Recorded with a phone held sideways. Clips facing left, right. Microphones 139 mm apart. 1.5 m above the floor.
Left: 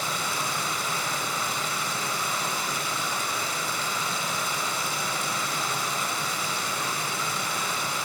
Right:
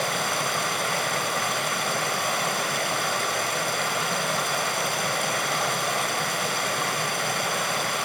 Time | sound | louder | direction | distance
0.0 | running water | right 4 dB | 70° right (ahead or behind) | 2.5 m